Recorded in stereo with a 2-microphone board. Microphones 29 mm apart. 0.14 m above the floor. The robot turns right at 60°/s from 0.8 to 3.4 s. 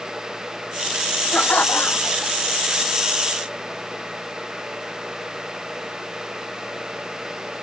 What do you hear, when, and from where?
1.3 s laughter: 70° left; by 2.3 s 135° left